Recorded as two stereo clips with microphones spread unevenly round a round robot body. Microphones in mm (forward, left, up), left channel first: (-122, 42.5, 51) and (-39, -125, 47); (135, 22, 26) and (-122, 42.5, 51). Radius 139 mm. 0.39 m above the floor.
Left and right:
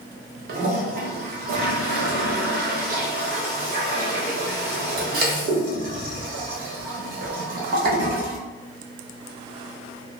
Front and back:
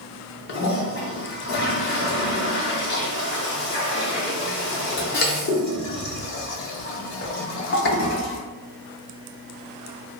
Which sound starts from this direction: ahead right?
A toilet flushing, at 0.5 s.